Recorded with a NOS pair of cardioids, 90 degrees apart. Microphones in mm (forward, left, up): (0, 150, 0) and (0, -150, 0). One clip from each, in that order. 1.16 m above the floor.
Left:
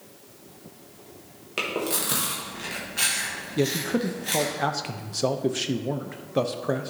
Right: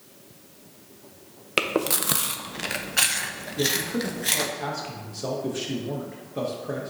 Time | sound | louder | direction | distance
1.6 | chewing | right 3 dB | 55° right | 0.9 m
3.6 | a man speaking | even | 40° left | 0.8 m